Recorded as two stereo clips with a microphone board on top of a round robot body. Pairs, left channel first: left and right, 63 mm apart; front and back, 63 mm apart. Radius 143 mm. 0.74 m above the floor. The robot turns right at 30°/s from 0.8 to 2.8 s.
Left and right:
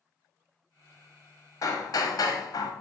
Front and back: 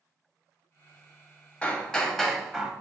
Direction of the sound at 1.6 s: 70° left.